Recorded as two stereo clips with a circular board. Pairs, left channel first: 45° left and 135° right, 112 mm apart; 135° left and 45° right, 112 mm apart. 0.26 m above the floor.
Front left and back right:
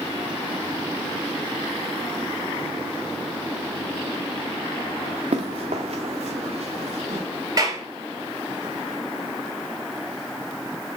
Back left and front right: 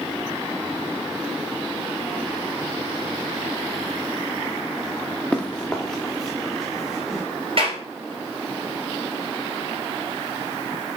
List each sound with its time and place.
5.3 s running footsteps: 145° right, 1.6 m; by 7.2 s 135° right, 2.5 m
7.6 s a clap: 80° right, 3.5 m